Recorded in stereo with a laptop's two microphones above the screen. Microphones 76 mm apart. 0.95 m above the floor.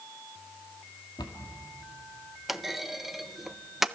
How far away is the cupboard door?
About 2 m.